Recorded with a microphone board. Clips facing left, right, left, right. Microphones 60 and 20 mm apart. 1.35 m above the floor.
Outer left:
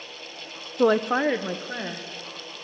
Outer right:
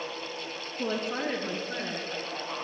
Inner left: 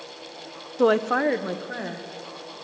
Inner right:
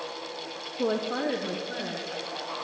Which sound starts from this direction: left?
A woman speaking, at 0.8 s.